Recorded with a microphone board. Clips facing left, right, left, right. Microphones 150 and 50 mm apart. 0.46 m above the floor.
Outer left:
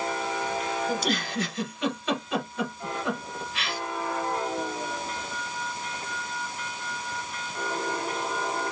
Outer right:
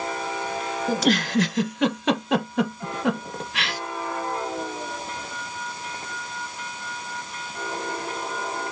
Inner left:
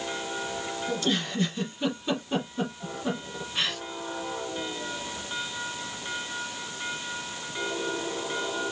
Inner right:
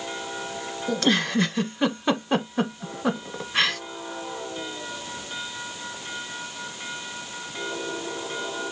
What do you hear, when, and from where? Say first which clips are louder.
0.9 s a giggle: outer right 6 dB, inner right 7 dB; 80° right, 0.8 m